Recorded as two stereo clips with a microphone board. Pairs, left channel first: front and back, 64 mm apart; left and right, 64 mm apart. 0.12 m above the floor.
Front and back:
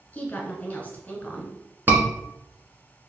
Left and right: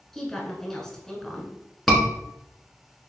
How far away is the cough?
I don't hear a cough.